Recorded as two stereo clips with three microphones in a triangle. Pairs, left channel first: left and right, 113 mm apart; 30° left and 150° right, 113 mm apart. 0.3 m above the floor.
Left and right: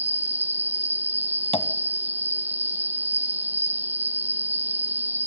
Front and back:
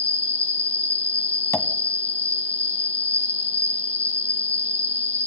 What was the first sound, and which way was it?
An insect, 165° right.